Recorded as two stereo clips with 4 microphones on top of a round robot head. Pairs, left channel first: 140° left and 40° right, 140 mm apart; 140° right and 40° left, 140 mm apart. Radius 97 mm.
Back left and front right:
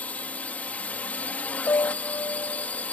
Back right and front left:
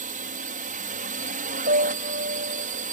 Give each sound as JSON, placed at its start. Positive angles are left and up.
{"t": 0.0, "sound": "a drone", "azimuth_deg": 60}
{"t": 1.7, "sound": "a piano", "azimuth_deg": 65}